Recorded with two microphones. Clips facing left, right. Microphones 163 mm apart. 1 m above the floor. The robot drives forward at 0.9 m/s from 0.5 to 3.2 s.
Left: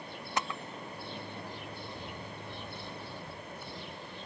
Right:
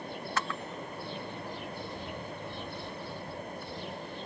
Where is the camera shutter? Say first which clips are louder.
Left 1 dB; 20° left (ahead or behind); by 3.7 s 5° left (ahead or behind).